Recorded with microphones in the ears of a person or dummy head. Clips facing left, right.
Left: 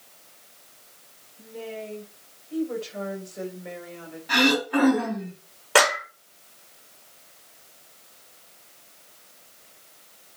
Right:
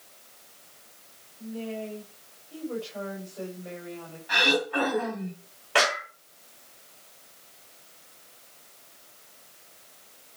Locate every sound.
1.4 s a woman speaking: 25° left (ahead or behind), 5.5 m
4.3 s throat clearing: 40° left (ahead or behind), 5 m
5.8 s a clap: 50° left (ahead or behind), 4.5 m